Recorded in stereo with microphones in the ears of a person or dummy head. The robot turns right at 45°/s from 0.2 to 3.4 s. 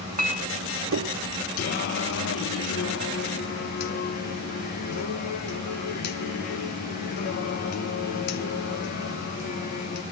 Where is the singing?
45° left, 0.6 m; by 10.0 s 125° left, 0.6 m.